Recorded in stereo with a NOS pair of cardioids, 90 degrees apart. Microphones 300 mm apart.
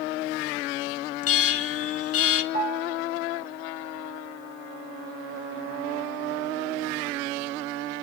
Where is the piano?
30° right, 4.5 m.